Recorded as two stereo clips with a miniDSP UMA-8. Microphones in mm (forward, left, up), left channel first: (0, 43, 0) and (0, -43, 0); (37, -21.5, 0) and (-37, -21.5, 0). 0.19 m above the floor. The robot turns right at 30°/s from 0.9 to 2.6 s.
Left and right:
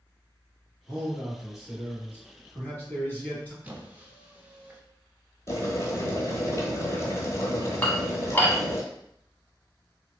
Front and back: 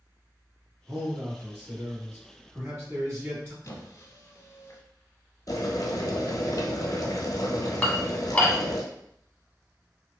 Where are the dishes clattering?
50° left, 0.7 m.